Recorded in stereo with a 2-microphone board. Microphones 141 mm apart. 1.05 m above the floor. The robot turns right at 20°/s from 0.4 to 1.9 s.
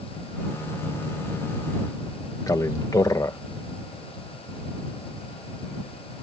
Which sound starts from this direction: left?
A man speaking, at 2.5 s.